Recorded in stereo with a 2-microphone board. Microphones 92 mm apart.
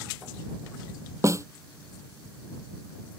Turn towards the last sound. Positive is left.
turn(degrees=-35)  # may be behind; listen again after turning